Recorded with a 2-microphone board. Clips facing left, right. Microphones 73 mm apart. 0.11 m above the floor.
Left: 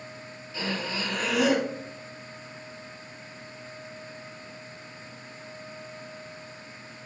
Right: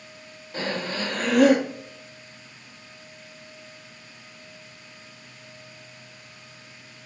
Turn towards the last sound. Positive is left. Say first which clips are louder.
# right 3 dB
turn(degrees=-50)  # may be behind; listen again after turning